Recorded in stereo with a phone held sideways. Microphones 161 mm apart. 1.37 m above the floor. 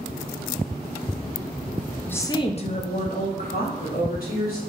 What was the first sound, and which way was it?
A woman speaking, 10° left (ahead or behind).